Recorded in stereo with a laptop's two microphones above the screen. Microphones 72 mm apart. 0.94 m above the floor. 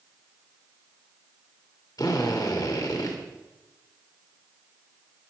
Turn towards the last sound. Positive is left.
turn(degrees=60)  # may be behind; listen again after turning